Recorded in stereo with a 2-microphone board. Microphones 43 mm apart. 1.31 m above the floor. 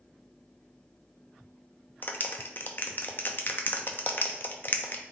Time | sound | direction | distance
2.0 | a clap | 45° left (ahead or behind) | 0.6 m